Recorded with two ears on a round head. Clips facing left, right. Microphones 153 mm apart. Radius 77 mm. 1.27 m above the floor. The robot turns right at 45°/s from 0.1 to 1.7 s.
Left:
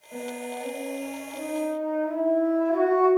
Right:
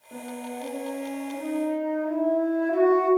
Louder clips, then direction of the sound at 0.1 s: Left 2 dB; 115° right.